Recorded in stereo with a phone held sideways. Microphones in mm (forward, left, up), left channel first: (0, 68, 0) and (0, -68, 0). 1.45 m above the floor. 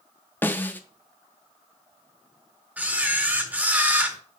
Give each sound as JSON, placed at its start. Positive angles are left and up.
{"t": 0.4, "sound": "a snare drum", "side_deg": 15, "distance_m": 0.9}
{"t": 2.8, "sound": "a camera shutter", "side_deg": -10, "distance_m": 1.4}